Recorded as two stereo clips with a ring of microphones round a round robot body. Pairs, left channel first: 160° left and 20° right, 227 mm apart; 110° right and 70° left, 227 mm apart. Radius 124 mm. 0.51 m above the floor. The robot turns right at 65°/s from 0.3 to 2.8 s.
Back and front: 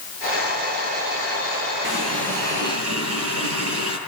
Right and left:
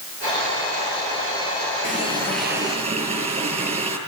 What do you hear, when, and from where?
1.8 s a running tap: 60° right, 8.5 m; by 4.0 s 5° left, 8.5 m